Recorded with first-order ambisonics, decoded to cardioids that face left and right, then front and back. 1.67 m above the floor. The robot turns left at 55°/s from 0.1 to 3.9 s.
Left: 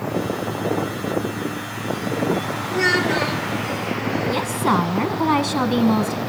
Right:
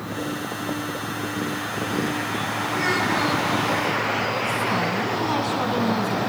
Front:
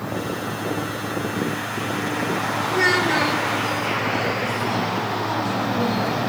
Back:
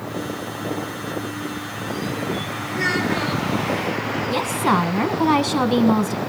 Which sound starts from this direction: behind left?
A woman speaking, at 4.3 s.